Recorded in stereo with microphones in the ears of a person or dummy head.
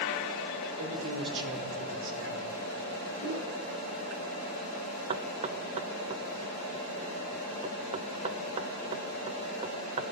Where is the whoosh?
80° right, 4.5 m.